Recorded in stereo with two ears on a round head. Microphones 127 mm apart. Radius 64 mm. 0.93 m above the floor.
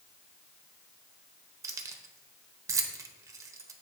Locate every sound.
1.6 s keys jangling: 20° right (ahead or behind), 0.6 m